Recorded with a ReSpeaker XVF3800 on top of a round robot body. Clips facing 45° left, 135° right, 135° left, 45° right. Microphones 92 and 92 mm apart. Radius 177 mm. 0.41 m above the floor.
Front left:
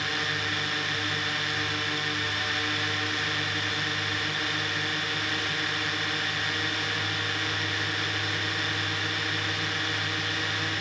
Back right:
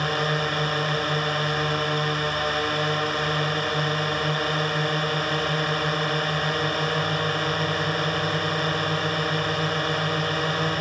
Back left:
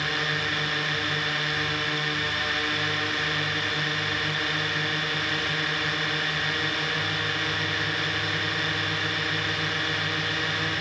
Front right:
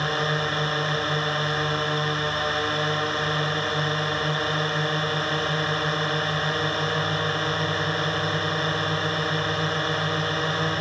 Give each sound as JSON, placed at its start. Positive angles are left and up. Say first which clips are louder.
{"t": 0.0, "sound": "a drone", "louder": "back right 7 dB, front right 4 dB", "azimuth_deg": -95}